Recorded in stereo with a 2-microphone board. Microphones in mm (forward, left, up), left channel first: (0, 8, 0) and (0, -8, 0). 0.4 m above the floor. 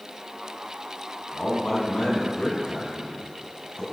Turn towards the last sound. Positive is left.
turn(degrees=50)  # may be behind; listen again after turning